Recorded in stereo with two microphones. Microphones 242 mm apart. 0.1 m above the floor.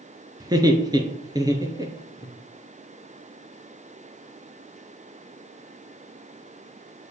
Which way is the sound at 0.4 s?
15° right (ahead or behind).